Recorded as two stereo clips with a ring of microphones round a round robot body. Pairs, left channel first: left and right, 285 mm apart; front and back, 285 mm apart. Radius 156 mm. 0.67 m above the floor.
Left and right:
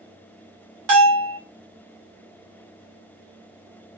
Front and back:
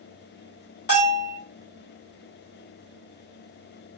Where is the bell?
60° right, 2.5 m.